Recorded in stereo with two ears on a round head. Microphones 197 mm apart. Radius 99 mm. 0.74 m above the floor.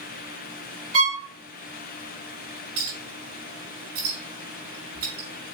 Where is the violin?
75° right (ahead or behind), 4 m.